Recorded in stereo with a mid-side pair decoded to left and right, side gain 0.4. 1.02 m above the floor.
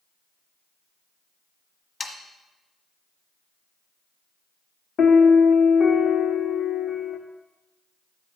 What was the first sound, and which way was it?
Sawing, 45° left.